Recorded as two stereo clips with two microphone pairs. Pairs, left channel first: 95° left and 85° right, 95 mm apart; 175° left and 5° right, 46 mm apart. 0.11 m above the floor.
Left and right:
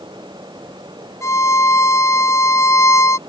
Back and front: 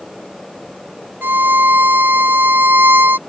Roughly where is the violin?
Ahead left.